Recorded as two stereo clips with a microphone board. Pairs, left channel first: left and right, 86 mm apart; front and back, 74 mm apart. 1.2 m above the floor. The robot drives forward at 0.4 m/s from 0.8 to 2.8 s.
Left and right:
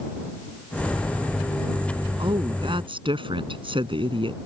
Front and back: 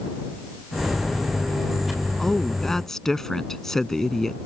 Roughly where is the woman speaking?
Right.